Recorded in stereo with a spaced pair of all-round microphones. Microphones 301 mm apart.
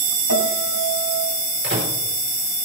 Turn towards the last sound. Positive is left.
turn(degrees=-40)  # may be behind; listen again after turning